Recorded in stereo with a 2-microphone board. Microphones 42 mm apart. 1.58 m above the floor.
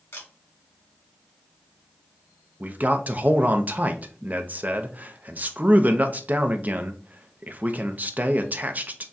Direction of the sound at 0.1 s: 75° left (ahead or behind).